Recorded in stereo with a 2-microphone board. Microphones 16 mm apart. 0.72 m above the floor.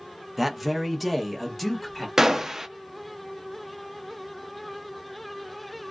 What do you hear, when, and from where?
0.4 s a man speaking: 15° right (ahead or behind), 0.6 m; by 2.1 s 5° left (ahead or behind), 1.4 m
2.2 s a gunshot: 30° right (ahead or behind), 0.6 m